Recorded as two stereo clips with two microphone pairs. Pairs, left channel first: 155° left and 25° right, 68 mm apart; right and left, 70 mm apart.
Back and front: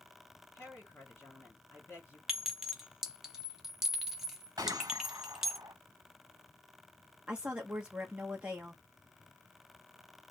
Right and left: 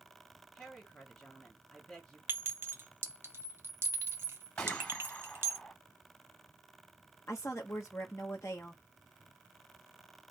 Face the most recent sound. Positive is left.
turn(degrees=-85)